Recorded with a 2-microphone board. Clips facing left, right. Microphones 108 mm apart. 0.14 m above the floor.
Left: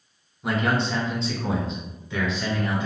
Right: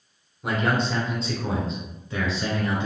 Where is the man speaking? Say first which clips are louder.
Even; centre (ahead or behind), 1.3 m.